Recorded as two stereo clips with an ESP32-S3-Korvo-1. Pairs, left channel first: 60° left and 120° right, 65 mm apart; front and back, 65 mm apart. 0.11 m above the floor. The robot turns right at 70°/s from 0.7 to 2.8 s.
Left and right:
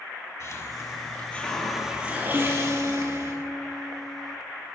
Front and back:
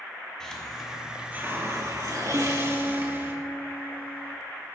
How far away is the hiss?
About 2.5 m.